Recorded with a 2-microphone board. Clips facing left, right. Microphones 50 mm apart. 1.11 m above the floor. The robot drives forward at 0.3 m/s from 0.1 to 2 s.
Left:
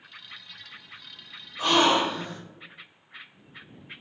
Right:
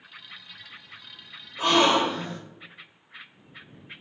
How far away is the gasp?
About 1.4 m.